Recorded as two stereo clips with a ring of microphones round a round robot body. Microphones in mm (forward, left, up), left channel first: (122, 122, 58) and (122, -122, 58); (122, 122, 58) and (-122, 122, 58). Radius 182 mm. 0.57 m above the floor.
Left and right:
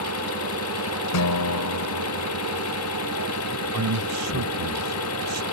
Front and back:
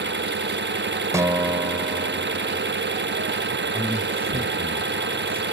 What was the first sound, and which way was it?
An engine running, 135° left.